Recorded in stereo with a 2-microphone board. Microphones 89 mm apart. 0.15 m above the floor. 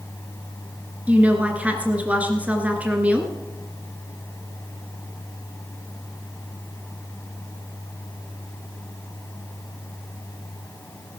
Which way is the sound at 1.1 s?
15° right (ahead or behind).